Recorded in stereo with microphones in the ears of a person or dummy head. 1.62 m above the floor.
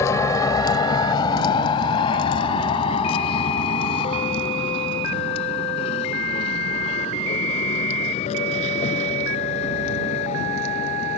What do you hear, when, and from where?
0.0 s a vehicle: 20° left (ahead or behind); by 11.2 s 40° left (ahead or behind)